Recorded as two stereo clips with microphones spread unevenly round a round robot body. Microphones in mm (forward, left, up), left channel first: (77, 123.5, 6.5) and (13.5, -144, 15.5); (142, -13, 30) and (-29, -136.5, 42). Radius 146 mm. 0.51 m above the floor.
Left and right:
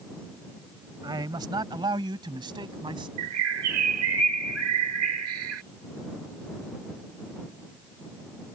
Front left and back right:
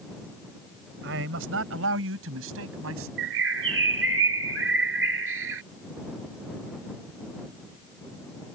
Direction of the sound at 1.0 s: Straight behind.